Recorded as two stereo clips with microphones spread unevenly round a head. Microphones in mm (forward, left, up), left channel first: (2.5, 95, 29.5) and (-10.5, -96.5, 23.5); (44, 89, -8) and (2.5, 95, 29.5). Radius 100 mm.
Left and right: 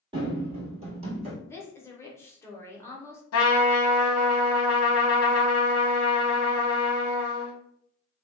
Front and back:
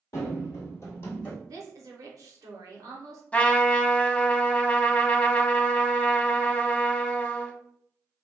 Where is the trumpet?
75° left, 0.6 m.